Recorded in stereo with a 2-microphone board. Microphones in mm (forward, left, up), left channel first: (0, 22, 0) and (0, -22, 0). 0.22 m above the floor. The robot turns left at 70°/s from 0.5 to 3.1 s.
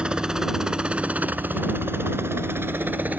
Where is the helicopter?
25° right (ahead or behind); by 3.2 s 40° right (ahead or behind).